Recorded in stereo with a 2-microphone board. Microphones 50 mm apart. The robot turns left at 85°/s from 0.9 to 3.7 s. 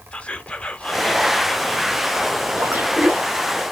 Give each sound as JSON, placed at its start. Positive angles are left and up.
{"t": 0.1, "sound": "whispering", "side_deg": 20, "distance_m": 0.9}
{"t": 2.6, "sound": "a splash", "azimuth_deg": -85, "distance_m": 3.0}